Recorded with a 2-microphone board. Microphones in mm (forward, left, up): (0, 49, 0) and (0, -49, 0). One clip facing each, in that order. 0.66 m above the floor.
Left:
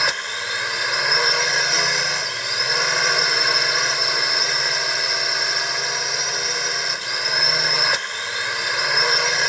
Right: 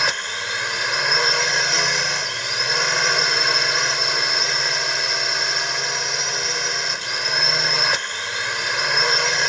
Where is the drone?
Centre (ahead or behind).